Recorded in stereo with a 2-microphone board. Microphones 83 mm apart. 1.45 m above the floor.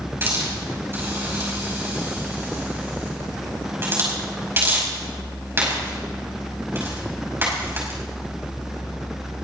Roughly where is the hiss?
Right.